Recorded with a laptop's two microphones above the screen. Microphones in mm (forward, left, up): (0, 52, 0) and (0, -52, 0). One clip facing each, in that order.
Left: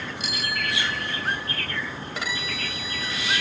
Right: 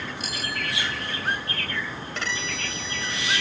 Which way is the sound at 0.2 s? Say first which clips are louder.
Left 4 dB; 45° right (ahead or behind).